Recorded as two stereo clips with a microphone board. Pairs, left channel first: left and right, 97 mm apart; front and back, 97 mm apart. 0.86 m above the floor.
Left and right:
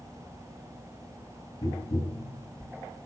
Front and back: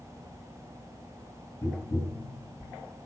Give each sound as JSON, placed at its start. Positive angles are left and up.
{"t": 1.6, "sound": "tapping", "azimuth_deg": 65, "distance_m": 9.0}